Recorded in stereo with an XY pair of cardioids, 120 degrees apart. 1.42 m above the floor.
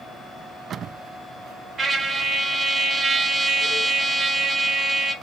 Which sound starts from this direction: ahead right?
A trumpet, at 1.8 s.